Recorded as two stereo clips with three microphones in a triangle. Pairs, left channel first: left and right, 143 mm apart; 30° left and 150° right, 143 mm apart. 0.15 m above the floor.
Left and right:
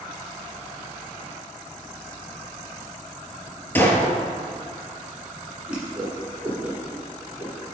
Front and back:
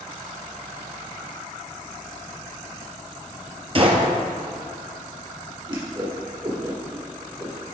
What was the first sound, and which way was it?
A gunshot, 165° left.